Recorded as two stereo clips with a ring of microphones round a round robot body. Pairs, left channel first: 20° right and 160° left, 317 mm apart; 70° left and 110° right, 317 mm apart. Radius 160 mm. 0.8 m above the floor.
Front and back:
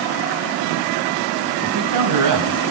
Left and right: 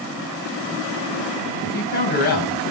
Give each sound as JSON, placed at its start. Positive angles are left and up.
{"t": 1.6, "sound": "a man speaking", "azimuth_deg": 130, "distance_m": 4.5}